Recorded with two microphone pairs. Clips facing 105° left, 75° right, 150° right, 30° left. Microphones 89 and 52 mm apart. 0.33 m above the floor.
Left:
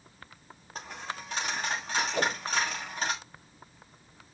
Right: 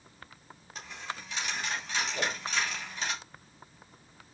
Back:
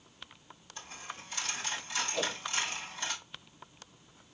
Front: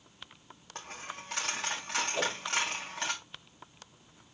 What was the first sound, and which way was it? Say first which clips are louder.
A dropped coin: left 2 dB, front 3 dB; 55° left.